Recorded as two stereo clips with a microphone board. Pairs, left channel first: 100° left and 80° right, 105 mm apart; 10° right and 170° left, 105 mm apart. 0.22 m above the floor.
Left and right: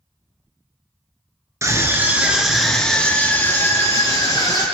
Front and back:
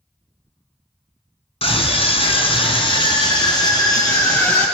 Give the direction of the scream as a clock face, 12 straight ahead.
1 o'clock.